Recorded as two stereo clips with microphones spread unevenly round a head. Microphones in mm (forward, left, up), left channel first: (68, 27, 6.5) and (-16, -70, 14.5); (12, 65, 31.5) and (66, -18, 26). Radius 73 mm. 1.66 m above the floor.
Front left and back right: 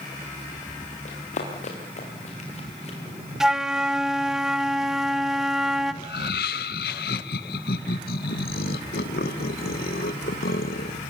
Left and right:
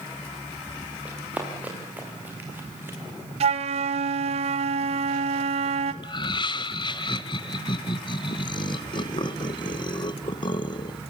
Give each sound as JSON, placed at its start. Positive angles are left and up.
{"t": 1.1, "sound": "running footsteps", "azimuth_deg": 20, "distance_m": 7.0}
{"t": 3.4, "sound": "a flute", "azimuth_deg": -45, "distance_m": 1.5}
{"t": 6.0, "sound": "laughter", "azimuth_deg": 80, "distance_m": 1.8}